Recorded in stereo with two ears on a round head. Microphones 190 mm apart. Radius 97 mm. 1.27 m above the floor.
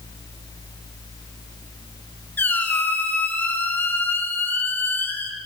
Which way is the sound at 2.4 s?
10° left (ahead or behind).